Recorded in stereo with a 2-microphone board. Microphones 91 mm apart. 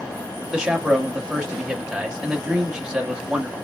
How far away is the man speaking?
About 1.4 m.